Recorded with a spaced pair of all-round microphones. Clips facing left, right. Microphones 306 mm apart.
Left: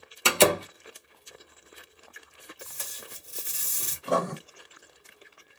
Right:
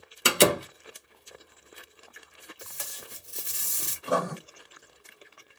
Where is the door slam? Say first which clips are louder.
Even; 20° right (ahead or behind), 0.5 m.